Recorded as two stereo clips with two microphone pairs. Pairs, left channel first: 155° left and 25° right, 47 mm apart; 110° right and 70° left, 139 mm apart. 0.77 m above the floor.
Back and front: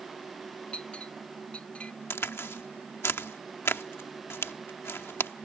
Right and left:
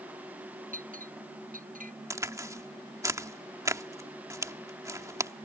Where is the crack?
135° left.